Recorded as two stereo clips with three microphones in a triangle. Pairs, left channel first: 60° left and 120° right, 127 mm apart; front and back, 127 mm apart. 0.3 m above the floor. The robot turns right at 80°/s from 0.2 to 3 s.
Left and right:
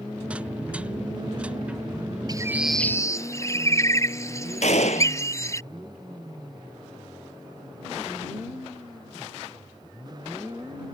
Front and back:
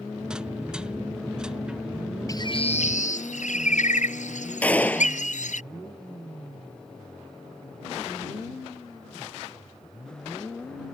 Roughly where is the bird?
Ahead right.